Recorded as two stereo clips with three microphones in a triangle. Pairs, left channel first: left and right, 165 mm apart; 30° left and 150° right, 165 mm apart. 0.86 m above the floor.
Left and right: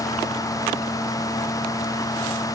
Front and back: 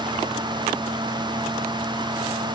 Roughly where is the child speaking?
No child speaking in this recording.